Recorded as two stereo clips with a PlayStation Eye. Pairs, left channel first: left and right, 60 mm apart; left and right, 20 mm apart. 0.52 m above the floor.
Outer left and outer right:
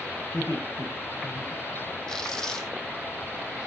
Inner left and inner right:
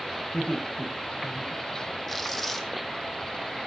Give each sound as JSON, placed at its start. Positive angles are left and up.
{"t": 0.3, "sound": "laughter", "side_deg": 70, "distance_m": 6.0}
{"t": 2.1, "sound": "tearing paper", "side_deg": 10, "distance_m": 3.5}